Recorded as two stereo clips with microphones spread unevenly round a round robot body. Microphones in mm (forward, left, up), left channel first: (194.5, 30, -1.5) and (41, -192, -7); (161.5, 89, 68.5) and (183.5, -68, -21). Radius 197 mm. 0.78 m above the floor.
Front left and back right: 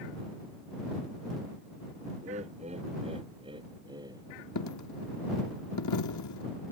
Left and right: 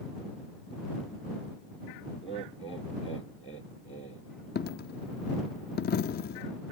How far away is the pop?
I don't hear a pop.